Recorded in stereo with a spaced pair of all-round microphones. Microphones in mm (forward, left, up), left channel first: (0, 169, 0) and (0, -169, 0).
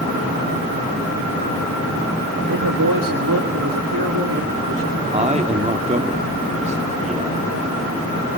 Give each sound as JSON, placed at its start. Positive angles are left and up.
{"t": 2.5, "sound": "a man speaking", "side_deg": -70, "distance_m": 1.6}
{"t": 5.1, "sound": "a man speaking", "side_deg": -20, "distance_m": 3.0}